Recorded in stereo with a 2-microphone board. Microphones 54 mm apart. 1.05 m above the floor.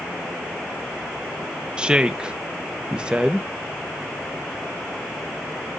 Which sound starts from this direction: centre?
A woman speaking, at 1.8 s.